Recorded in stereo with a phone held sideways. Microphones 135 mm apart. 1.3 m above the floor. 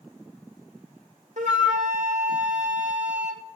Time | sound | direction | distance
1.4 | a flute | 65° right (ahead or behind) | 1.3 m